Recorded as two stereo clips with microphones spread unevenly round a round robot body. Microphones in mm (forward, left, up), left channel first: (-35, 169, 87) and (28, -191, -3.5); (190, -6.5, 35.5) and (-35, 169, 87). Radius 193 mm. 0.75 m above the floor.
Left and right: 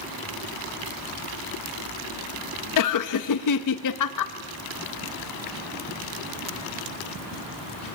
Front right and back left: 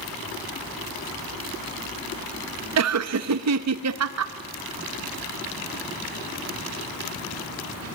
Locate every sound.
2.8 s laughter: 135° left, 0.9 m